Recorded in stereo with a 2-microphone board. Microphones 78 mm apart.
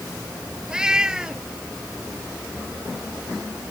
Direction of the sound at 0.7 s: 10° right (ahead or behind).